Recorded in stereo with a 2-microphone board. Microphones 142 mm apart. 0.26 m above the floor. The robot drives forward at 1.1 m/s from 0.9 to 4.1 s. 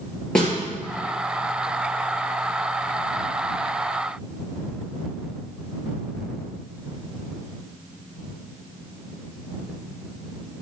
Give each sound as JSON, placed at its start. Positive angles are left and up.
{"t": 0.3, "sound": "a snare drum", "side_deg": 5, "distance_m": 3.5}